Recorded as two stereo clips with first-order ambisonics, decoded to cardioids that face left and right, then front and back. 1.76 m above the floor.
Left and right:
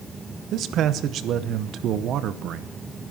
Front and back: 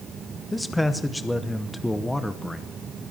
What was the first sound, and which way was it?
A man speaking, 85° right.